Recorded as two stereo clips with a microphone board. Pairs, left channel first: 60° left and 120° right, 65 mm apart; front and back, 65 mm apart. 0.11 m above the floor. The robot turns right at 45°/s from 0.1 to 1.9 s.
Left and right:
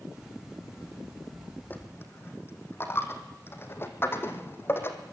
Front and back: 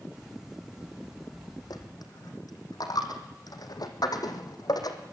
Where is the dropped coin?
5° right, 2.5 m; by 5.0 s 5° left, 2.5 m.